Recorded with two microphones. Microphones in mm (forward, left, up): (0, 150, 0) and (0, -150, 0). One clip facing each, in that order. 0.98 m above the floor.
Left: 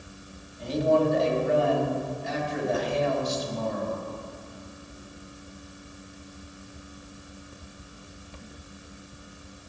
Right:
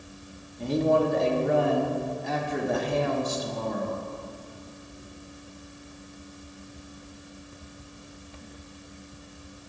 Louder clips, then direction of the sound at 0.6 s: Even; 60° right (ahead or behind).